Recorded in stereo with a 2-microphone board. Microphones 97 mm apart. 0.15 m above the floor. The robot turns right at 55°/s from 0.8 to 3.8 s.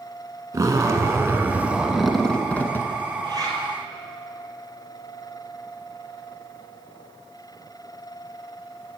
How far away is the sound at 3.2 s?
About 2 m.